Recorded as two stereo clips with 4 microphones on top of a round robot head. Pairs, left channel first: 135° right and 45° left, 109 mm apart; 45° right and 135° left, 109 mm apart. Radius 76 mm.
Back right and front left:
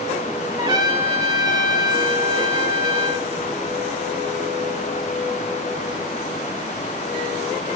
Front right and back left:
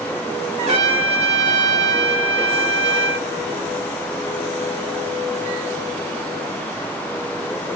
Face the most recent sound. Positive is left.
turn(degrees=100)